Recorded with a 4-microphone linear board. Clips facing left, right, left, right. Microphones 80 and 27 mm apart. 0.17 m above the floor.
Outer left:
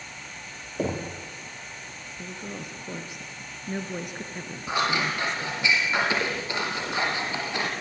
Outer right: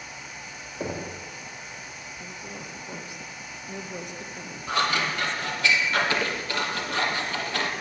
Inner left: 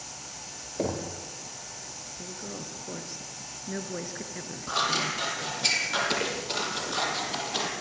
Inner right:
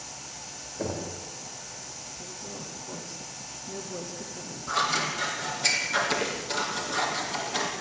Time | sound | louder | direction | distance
0.8 | knocking | outer left 3 dB, inner left 2 dB | 75° left (ahead or behind) | 4.5 m
2.2 | a woman speaking | outer left 4 dB, inner left 2 dB | 50° left (ahead or behind) | 2.5 m
4.7 | scissors | even, inner right 1 dB | 15° left (ahead or behind) | 4 m